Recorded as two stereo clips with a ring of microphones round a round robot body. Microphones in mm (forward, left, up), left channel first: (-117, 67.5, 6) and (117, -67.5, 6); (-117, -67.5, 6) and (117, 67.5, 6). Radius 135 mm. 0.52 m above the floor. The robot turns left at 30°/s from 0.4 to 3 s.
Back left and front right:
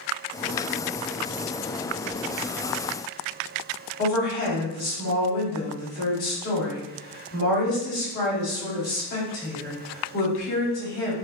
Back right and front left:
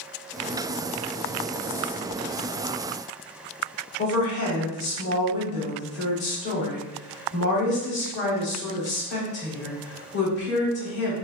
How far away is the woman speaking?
About 1.3 m.